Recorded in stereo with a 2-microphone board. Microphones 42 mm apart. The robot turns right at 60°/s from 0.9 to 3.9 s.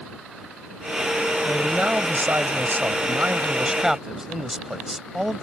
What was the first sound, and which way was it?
A man speaking, 160° right.